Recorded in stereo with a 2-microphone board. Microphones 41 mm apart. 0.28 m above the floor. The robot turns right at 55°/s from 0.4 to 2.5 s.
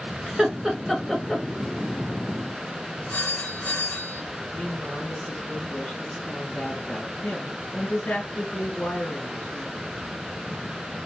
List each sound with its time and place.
0.3 s laughter: 10° right (ahead or behind), 1.2 m; by 1.4 s 10° left (ahead or behind), 1.2 m
3.1 s a phone ringing: 70° left (ahead or behind), 2.5 m
4.5 s a woman speaking: 60° left (ahead or behind), 2 m